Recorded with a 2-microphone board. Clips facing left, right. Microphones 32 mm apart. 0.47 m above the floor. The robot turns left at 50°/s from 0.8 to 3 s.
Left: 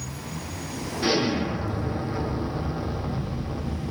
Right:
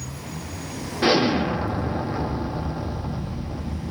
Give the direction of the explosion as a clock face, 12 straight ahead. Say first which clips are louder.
Right 5 dB; 3 o'clock.